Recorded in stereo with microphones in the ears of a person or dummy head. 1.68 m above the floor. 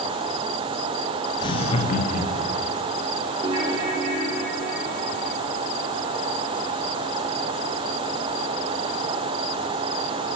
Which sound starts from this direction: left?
Laughter, at 1.4 s.